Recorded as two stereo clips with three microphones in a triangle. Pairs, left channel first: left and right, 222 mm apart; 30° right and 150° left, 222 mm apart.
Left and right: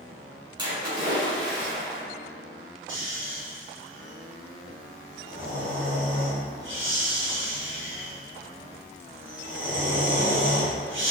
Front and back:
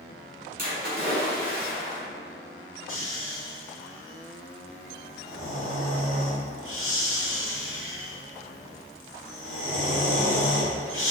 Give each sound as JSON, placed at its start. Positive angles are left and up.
{"t": 0.6, "sound": "a splash", "azimuth_deg": -160, "distance_m": 1.6}
{"t": 2.9, "sound": "snoring", "azimuth_deg": -55, "distance_m": 1.1}